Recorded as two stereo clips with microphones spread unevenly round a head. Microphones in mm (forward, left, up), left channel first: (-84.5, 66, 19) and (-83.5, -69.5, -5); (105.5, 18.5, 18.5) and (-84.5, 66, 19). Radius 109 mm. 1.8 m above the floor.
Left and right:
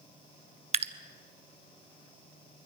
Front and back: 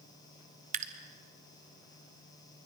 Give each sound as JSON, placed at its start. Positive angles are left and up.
{"t": 0.7, "sound": "dripping", "azimuth_deg": -135, "distance_m": 0.9}